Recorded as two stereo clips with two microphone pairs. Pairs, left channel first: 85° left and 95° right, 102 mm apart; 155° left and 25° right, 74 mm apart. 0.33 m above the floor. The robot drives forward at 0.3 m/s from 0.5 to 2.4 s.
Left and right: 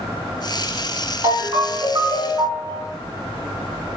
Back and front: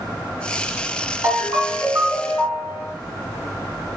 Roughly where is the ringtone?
Ahead right.